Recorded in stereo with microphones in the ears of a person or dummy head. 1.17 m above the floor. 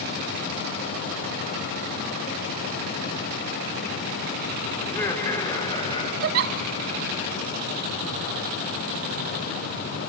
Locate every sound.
4.8 s laughter: 10° left (ahead or behind), 4.5 m; by 6.1 s 25° left (ahead or behind), 5.5 m
6.2 s a giggle: 45° right (ahead or behind), 0.8 m